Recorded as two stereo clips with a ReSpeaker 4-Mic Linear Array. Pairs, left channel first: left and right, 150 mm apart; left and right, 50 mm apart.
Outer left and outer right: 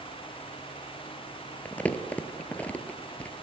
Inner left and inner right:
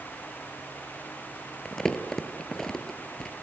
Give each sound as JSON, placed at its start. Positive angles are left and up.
{"t": 1.6, "sound": "crumpling", "side_deg": 10, "distance_m": 0.5}